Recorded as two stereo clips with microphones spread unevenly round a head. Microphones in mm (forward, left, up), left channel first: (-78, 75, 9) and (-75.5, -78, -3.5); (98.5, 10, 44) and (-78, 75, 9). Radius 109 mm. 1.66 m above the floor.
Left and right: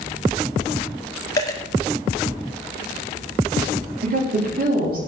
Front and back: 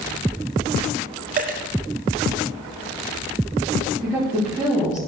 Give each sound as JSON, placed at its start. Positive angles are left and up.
{"t": 1.4, "sound": "a dropped coin", "azimuth_deg": 130, "distance_m": 1.9}
{"t": 4.0, "sound": "a woman speaking", "azimuth_deg": -105, "distance_m": 4.0}